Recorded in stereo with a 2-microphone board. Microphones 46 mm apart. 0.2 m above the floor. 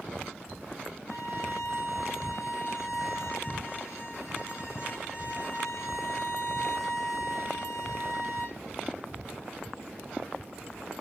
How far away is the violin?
About 9 m.